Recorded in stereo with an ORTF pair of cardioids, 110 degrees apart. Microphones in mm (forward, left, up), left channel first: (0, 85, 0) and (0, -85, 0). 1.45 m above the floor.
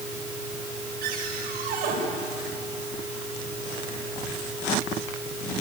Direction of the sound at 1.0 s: 65° right.